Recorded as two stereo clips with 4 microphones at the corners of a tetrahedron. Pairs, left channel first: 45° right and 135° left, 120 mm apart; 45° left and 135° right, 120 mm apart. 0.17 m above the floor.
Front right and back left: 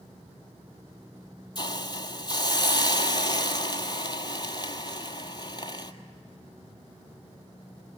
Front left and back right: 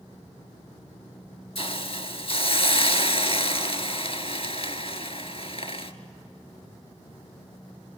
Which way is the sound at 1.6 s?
10° left.